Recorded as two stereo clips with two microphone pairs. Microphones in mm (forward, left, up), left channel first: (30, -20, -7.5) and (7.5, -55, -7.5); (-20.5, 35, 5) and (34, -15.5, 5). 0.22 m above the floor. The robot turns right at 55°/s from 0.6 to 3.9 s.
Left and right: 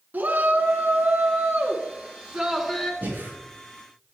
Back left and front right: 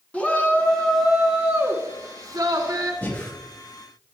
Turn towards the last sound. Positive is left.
turn(degrees=-110)